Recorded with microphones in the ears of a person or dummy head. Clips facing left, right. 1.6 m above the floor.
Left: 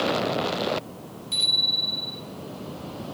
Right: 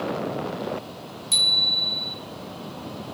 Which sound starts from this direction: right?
A bicycle bell, at 1.3 s.